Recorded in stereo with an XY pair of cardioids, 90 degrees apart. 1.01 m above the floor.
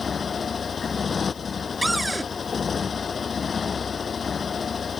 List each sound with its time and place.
0.0 s a motorcycle: 45° left
1.8 s a cupboard door: 15° right